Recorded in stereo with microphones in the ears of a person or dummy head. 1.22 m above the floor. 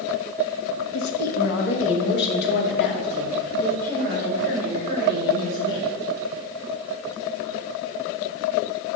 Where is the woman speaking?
85° left, 1.2 m; by 5.8 s 45° left (ahead or behind), 5 m.